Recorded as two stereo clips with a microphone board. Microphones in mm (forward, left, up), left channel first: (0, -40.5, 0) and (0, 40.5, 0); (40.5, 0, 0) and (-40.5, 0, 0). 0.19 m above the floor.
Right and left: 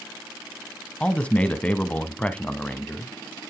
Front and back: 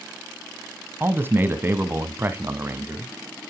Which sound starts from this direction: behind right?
A man speaking, at 1.0 s.